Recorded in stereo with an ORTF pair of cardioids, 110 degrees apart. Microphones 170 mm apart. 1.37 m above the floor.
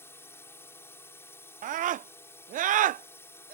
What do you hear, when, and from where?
0.0 s a drone: 15° left
1.6 s a scream: 55° right